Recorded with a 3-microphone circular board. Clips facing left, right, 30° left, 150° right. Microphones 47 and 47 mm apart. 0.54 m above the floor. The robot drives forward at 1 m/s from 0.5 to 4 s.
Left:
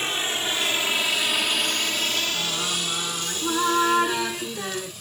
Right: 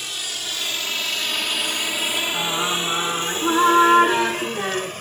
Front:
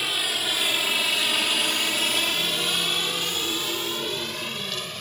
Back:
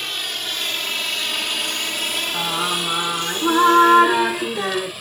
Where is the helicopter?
110° left; by 5.0 s 65° right.